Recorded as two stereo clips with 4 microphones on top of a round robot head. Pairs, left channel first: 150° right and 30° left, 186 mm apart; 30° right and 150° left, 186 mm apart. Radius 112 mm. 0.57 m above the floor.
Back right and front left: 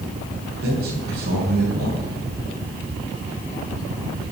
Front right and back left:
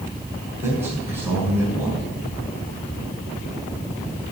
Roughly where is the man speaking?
Left.